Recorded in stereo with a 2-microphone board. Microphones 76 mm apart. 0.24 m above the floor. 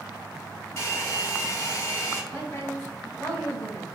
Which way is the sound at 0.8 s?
35° left (ahead or behind).